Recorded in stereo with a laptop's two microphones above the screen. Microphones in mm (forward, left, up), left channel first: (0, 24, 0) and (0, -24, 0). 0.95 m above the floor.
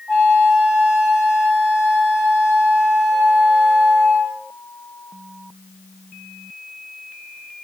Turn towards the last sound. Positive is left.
turn(degrees=10)  # may be behind; listen again after turning